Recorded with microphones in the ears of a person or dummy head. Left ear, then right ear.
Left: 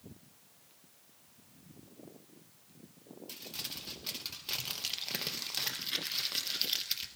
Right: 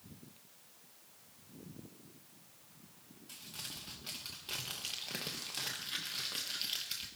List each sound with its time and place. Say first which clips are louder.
3.3 s crumpling: left 4 dB; 20° left (ahead or behind), 1.0 m